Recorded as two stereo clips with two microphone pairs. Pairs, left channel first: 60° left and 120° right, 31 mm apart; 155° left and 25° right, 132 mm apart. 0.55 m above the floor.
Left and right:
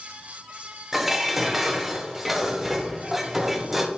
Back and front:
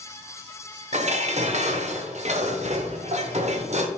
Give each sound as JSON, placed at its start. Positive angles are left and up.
{"t": 0.9, "sound": "dishes clattering", "azimuth_deg": -35, "distance_m": 1.1}